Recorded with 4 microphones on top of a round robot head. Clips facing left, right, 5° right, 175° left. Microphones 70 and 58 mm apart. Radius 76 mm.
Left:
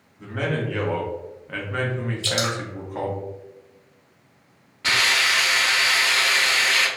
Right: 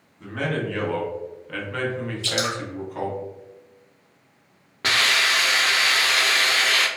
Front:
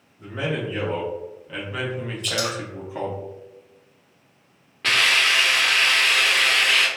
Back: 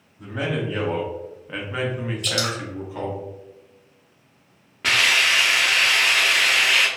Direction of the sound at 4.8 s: 105° right.